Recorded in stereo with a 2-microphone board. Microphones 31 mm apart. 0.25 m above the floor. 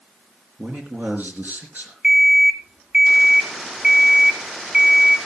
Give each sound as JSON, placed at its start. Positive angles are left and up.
{"t": 0.6, "sound": "a man speaking", "side_deg": -65, "distance_m": 3.5}
{"t": 2.0, "sound": "an alarm clock", "side_deg": -35, "distance_m": 1.3}